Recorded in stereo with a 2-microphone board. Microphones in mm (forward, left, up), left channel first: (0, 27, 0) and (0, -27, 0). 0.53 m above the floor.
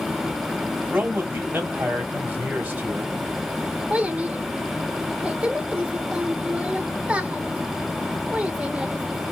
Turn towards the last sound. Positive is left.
turn(degrees=-25)  # may be behind; listen again after turning